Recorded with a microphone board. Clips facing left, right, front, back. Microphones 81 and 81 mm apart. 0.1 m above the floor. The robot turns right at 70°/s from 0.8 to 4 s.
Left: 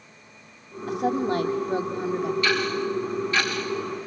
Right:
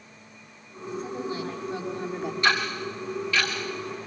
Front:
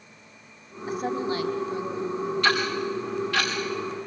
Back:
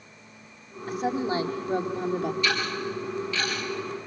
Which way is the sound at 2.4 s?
30° right.